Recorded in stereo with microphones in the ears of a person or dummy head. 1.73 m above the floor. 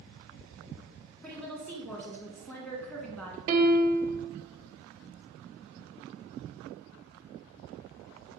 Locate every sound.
1.2 s a woman speaking: 10° left (ahead or behind), 1.1 m
3.5 s a piano: 50° right (ahead or behind), 0.5 m